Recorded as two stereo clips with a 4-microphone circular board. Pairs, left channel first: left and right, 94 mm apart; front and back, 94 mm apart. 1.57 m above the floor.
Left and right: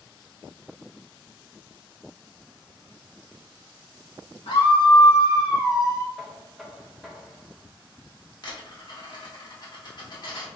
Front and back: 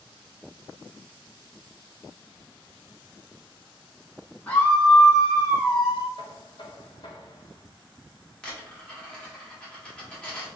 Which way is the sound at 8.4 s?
75° left.